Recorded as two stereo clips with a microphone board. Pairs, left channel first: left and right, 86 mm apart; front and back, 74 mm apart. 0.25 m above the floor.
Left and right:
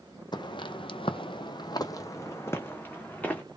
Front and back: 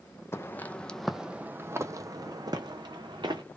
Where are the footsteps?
55° left, 0.7 m; by 3.4 s 165° left, 1.3 m.